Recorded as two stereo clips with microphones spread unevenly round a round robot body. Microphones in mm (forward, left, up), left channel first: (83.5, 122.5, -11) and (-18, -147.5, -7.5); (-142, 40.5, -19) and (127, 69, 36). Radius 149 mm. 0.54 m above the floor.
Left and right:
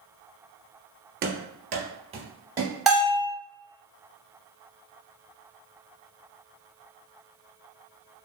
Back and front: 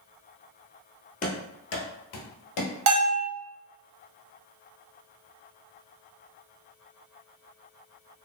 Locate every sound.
1.2 s running footsteps: 110° right, 0.6 m; by 2.8 s 170° left, 0.9 m
2.9 s a bell: 20° right, 1.0 m